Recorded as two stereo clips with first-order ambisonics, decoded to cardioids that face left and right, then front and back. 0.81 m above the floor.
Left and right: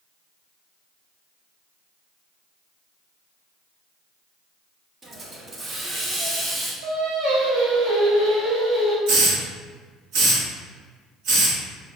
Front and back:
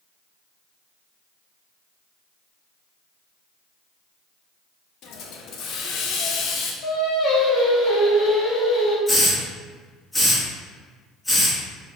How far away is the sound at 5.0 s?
About 0.6 m.